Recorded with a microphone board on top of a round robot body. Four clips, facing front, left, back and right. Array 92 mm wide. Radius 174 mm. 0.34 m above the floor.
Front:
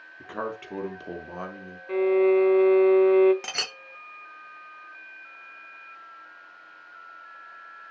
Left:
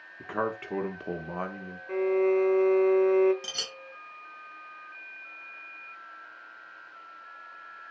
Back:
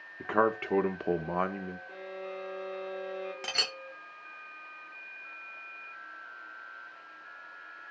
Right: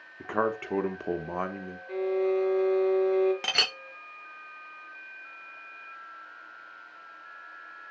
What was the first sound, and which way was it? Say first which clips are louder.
A man speaking: right 3 dB, back 6 dB; 160° right.